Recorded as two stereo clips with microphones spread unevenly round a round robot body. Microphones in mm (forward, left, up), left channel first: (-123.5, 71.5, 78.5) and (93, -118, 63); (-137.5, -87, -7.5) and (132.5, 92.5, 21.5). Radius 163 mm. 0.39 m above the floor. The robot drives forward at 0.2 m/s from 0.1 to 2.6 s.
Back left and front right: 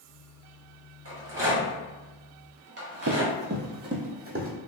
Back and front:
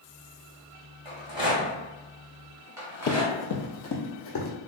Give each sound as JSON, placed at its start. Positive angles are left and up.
{"t": 1.1, "sound": "a rattle", "azimuth_deg": -40, "distance_m": 1.7}
{"t": 3.1, "sound": "running footsteps", "azimuth_deg": -90, "distance_m": 0.5}